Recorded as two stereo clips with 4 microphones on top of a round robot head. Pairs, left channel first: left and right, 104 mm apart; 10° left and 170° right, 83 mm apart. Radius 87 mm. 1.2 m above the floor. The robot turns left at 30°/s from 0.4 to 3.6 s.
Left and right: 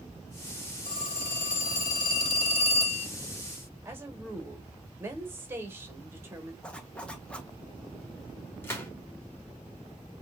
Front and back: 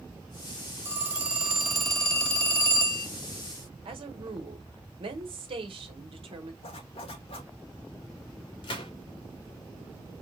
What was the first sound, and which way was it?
A phone ringing, 130° left.